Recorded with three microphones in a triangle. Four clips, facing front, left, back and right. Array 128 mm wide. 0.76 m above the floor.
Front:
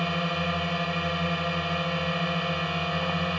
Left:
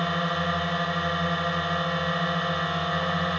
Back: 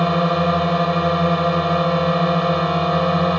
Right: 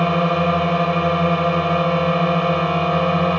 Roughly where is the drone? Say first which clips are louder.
Right 9 dB, back 11 dB; behind right.